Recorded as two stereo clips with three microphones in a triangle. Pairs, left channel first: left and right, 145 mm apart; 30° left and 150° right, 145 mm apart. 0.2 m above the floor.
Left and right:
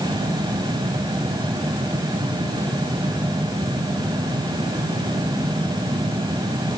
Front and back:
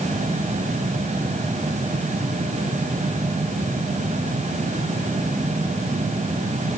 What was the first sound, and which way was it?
Only background noise.